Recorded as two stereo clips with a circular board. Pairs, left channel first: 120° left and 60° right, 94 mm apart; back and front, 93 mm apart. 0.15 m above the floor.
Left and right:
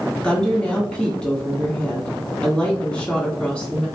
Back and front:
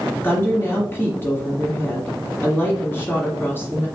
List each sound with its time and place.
0.2 s a woman speaking: straight behind, 1.4 m